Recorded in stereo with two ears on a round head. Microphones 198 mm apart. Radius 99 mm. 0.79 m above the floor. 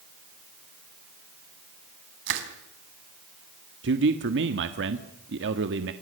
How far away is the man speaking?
About 1.5 m.